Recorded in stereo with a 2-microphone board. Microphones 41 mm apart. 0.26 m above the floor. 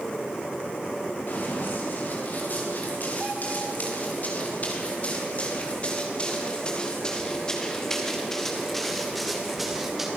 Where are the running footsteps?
55° left (ahead or behind), 7.5 m; by 10.1 s 5° right (ahead or behind), 5 m.